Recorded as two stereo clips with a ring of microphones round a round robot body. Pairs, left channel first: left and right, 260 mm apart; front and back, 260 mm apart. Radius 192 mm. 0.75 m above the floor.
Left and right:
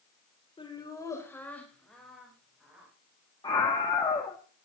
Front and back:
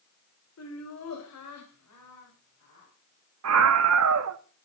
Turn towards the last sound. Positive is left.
turn(degrees=165)